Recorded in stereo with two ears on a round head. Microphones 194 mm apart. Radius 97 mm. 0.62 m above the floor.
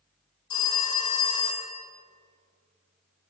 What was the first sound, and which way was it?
A phone ringing, 20° left (ahead or behind).